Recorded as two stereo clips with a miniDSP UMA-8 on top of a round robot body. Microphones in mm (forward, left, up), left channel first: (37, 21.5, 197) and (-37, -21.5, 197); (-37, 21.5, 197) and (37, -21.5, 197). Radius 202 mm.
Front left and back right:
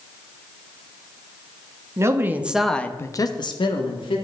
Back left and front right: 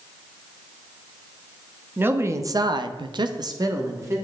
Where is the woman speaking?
95° right, 1.4 m; by 4.2 s 25° left, 2.0 m.